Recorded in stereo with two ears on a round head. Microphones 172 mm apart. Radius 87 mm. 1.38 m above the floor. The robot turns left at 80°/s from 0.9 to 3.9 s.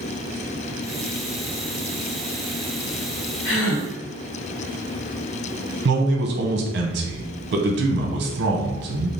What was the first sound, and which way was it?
A gasp, 110° left.